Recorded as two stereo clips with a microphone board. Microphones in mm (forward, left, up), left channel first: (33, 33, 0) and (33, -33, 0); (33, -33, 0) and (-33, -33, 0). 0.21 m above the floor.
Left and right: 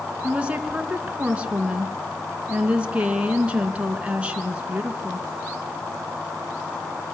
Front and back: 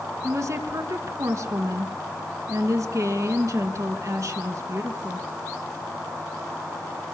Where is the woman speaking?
160° right, 3 m.